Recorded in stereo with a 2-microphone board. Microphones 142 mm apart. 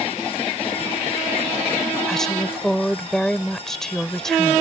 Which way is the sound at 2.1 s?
Centre (ahead or behind).